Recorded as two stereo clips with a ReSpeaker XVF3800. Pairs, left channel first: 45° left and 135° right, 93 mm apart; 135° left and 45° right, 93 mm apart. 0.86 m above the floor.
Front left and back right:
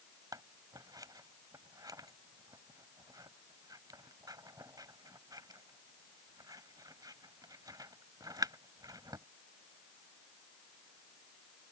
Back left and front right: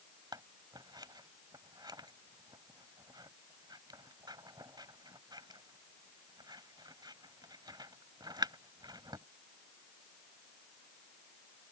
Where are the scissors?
85° right.